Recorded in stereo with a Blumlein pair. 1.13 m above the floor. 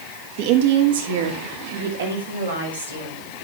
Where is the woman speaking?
45° right, 1.8 m; by 3.3 s 75° right, 6 m.